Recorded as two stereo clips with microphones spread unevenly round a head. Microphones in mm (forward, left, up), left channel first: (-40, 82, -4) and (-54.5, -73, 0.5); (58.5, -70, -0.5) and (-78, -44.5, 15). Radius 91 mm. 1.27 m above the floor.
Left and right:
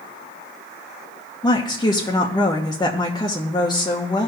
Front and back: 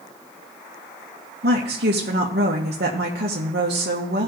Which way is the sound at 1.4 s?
150° left.